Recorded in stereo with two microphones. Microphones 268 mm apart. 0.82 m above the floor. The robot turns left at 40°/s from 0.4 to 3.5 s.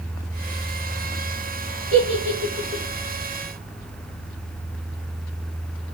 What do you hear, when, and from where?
1.9 s a giggle: 55° right (ahead or behind), 0.8 m; by 2.8 s 25° right (ahead or behind), 0.8 m